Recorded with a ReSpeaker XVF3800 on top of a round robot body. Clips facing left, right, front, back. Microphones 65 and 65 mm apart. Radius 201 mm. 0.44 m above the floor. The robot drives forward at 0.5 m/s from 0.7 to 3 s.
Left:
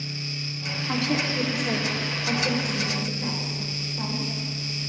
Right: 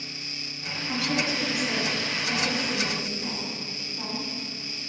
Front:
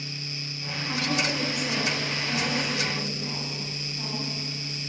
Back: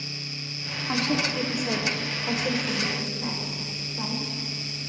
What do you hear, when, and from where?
0.9 s a woman speaking: 135° left, 1.7 m; by 4.2 s 155° left, 2.5 m